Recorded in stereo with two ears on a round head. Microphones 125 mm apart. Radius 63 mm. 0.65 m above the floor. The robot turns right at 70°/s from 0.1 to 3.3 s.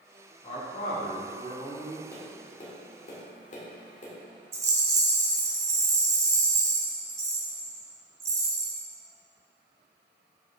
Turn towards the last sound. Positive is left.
turn(degrees=-20)  # may be behind; listen again after turning